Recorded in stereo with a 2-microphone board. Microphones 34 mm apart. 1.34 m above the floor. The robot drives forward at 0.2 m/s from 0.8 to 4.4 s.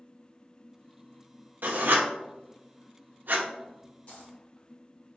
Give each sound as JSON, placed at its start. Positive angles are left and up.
{"t": 1.6, "sound": "writing", "side_deg": -65, "distance_m": 0.7}
{"t": 4.1, "sound": "a dropped coin", "side_deg": 45, "distance_m": 2.0}